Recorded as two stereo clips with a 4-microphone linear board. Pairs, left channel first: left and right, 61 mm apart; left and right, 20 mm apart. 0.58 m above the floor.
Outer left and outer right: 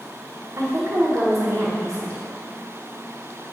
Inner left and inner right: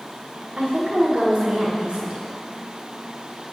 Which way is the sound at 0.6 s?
65° right (ahead or behind).